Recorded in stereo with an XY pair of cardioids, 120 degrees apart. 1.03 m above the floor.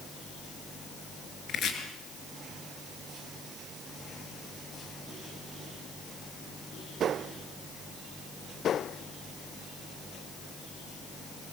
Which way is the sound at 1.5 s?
55° left.